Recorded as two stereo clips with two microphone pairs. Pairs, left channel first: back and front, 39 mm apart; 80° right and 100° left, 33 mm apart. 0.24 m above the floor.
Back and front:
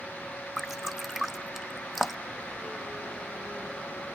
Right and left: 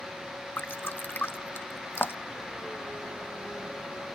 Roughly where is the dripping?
Right.